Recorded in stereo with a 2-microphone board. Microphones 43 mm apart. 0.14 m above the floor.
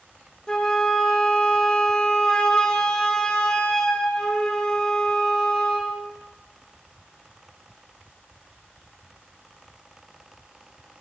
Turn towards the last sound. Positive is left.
turn(degrees=20)  # may be behind; listen again after turning